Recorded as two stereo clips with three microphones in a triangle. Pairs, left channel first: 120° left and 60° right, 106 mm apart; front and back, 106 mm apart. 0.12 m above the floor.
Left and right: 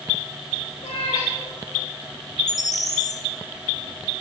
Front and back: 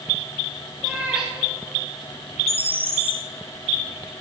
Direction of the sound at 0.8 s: 100° left.